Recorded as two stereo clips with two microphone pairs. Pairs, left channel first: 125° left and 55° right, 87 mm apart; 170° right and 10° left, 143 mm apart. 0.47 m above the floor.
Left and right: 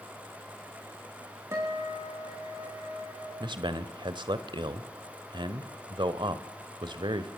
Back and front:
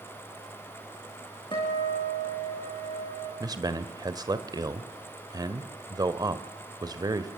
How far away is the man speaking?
About 1.6 m.